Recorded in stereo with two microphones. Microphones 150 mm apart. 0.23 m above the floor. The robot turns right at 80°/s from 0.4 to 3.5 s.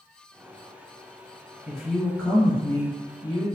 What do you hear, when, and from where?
1.7 s a woman speaking: 10° right (ahead or behind), 1.0 m; by 3.5 s 20° left (ahead or behind), 1.0 m